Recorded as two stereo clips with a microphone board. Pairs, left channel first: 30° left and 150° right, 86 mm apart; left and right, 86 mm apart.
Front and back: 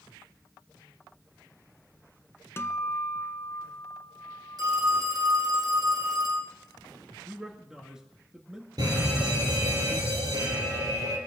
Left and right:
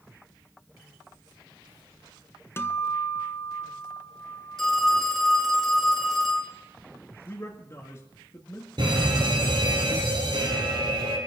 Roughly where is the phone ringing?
Behind.